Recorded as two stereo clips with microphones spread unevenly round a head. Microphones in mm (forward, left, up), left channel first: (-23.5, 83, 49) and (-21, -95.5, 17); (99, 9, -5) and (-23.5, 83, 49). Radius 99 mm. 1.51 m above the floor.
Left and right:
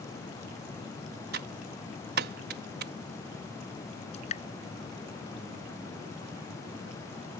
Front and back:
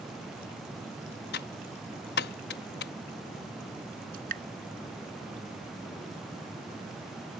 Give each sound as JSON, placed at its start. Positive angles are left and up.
{"t": 1.3, "sound": "typing on a keyboard", "azimuth_deg": -50}
{"t": 4.1, "sound": "dripping", "azimuth_deg": 140}